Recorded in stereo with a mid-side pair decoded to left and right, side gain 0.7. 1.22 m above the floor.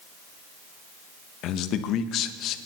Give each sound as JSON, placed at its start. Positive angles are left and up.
{"t": 1.4, "sound": "a man speaking", "azimuth_deg": 55, "distance_m": 1.0}